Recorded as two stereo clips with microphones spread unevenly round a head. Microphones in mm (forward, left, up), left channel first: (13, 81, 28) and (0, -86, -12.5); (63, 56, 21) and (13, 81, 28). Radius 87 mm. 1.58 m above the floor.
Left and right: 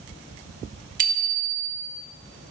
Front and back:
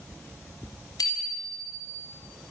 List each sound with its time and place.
1.0 s a bicycle bell: 50° right, 3.5 m